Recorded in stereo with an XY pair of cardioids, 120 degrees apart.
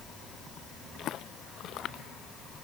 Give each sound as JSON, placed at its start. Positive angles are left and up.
{"t": 1.0, "sound": "footsteps", "azimuth_deg": 55}